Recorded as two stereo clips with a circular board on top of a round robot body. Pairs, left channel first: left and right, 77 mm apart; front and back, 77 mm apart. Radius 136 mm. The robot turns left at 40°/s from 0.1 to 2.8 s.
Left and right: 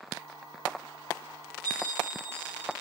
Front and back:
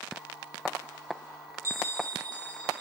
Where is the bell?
125° right, 6.5 m; by 2.8 s 170° right, 6.5 m.